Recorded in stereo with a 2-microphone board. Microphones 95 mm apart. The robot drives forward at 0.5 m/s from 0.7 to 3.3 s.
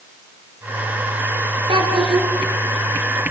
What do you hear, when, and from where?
1.7 s a child speaking: 70° right (ahead or behind), 4 m; by 2.3 s 75° right (ahead or behind), 3.5 m